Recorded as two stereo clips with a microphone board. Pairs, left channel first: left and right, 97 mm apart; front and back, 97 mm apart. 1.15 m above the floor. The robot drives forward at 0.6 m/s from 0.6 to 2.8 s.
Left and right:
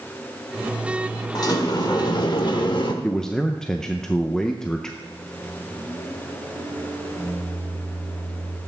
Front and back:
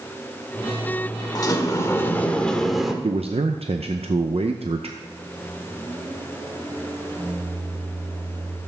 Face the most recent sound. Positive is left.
turn(degrees=155)